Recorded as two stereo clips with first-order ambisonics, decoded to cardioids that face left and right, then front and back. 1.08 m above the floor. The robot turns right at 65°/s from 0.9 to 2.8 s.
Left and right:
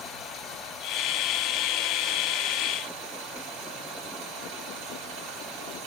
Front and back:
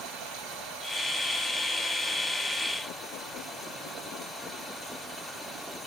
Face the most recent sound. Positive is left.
turn(degrees=-85)